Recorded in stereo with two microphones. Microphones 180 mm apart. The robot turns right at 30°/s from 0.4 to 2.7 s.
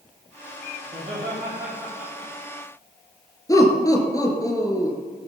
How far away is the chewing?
I don't hear chewing.